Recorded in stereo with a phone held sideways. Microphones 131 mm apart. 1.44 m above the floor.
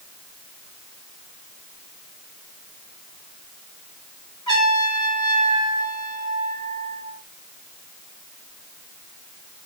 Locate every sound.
4.5 s a trumpet: 35° left (ahead or behind), 8.5 m